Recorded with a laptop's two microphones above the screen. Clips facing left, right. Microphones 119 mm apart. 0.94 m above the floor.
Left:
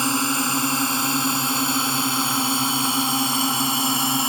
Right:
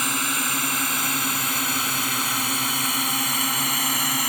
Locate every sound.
0.0 s a drone: 30° left (ahead or behind); by 4.3 s 25° left (ahead or behind)